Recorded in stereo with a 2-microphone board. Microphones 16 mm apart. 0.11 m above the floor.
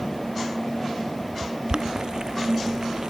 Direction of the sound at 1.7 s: 60° right (ahead or behind).